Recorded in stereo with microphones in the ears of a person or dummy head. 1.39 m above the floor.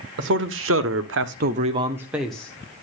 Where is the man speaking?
60° right (ahead or behind), 1.6 m; by 2.5 s 5° left (ahead or behind), 1.4 m.